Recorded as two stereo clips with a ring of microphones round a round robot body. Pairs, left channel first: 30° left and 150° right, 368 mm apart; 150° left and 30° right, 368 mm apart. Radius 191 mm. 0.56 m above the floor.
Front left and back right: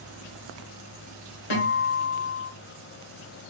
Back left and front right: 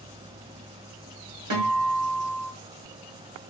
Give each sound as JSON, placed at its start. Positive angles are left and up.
{"t": 1.5, "sound": "a guitar", "azimuth_deg": 10, "distance_m": 2.5}